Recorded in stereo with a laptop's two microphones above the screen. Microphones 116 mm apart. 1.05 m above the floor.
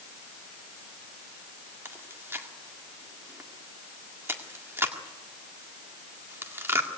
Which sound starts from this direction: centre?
Chewing, at 1.9 s.